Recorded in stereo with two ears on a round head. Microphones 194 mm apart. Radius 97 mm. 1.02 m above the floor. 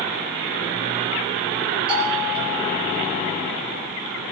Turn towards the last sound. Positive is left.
turn(degrees=-25)  # may be behind; listen again after turning